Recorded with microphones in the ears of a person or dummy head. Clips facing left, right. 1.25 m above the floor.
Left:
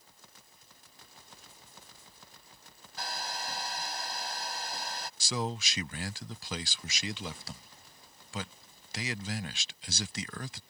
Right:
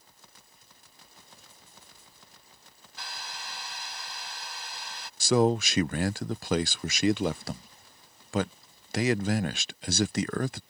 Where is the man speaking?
40° right (ahead or behind).